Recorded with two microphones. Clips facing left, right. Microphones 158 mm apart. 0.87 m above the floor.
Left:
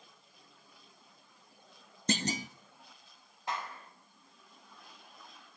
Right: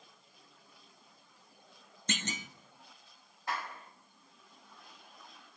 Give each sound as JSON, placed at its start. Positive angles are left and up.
{"t": 2.1, "sound": "a clunk", "side_deg": 35, "distance_m": 0.6}
{"t": 3.5, "sound": "a clap", "side_deg": 20, "distance_m": 5.5}